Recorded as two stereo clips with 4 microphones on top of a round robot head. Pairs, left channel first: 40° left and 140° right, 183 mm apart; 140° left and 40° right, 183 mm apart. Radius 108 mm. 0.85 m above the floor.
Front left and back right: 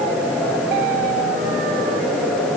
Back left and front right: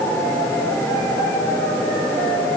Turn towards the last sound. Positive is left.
No sound to turn to.